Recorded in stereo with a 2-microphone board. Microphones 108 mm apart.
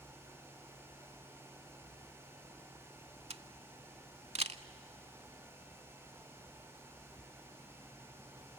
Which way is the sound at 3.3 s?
70° right (ahead or behind).